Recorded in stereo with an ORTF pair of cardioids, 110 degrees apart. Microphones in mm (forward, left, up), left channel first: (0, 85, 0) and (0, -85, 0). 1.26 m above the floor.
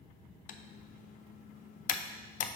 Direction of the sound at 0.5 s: 55° left.